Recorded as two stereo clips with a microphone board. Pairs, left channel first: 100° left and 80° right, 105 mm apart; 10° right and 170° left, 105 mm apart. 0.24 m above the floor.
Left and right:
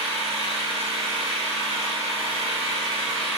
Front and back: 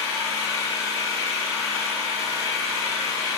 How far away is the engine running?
About 3 m.